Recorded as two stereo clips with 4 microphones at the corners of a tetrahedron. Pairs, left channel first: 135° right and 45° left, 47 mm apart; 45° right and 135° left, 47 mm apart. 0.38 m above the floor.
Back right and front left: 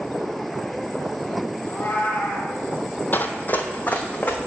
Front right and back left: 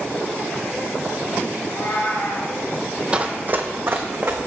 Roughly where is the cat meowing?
Right.